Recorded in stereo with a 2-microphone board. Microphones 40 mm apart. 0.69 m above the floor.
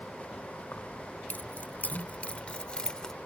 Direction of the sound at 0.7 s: 65° left (ahead or behind).